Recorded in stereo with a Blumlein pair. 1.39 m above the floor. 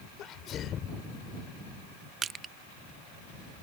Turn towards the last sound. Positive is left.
turn(degrees=-20)